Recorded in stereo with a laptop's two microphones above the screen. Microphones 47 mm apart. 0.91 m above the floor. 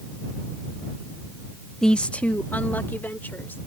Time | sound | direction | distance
1.8 | a woman speaking | 15° left (ahead or behind) | ?